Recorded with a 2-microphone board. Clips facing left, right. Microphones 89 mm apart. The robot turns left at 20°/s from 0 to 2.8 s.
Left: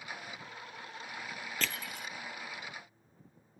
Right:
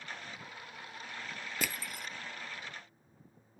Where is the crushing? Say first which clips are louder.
Even; 10° right (ahead or behind), 0.6 m; by 2.1 s centre (ahead or behind), 0.6 m.